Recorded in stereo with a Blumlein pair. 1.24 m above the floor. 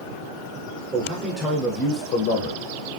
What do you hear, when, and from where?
0.9 s a man speaking: 20° right, 0.8 m; by 2.6 s 65° left, 0.7 m